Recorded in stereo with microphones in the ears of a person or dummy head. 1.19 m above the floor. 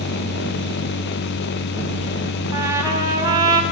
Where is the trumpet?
20° right (ahead or behind), 6 m.